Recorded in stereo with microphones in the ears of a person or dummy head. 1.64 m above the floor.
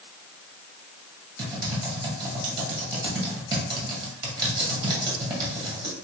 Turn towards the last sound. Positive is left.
turn(degrees=-20)  # may be behind; listen again after turning